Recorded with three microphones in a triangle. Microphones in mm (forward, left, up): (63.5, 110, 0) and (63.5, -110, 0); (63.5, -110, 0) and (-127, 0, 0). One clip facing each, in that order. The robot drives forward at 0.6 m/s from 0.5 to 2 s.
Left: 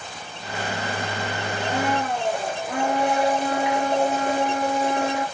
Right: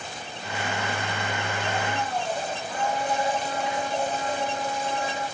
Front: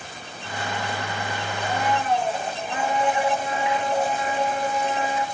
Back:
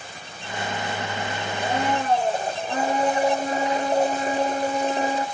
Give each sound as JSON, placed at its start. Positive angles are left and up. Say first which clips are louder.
{"t": 1.6, "sound": "a blender", "louder": "left 8 dB, back 1 dB", "azimuth_deg": 95, "distance_m": 1.8}